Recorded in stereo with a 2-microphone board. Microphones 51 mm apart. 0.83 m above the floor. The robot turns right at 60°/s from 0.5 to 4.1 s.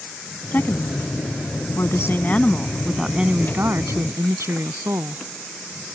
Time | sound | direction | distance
0.5 | a woman speaking | 40° left | ?